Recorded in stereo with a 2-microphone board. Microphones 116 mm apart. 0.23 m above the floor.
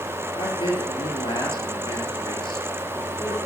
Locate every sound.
0.3 s a man speaking: 45° left (ahead or behind), 4 m